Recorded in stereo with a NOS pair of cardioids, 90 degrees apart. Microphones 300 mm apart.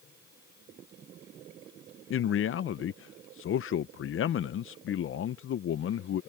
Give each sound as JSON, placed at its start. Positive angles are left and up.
{"t": 2.1, "sound": "a man speaking", "azimuth_deg": 45}